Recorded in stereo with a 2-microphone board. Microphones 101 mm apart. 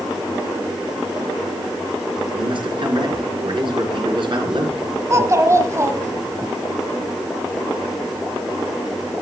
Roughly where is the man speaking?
Right.